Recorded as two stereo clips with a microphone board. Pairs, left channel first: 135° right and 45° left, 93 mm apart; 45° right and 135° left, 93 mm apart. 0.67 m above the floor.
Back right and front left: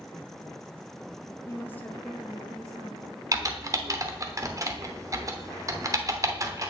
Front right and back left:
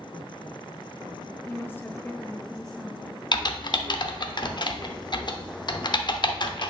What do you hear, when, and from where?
1.5 s a woman speaking: 100° right, 0.9 m; by 3.2 s 45° left, 1.1 m
3.3 s typing on a keyboard: 10° right, 0.7 m